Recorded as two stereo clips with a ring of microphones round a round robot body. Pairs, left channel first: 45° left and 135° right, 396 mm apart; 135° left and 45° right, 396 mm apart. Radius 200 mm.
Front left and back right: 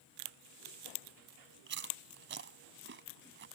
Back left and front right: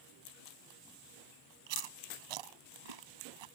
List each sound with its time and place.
1.7 s chewing: 70° right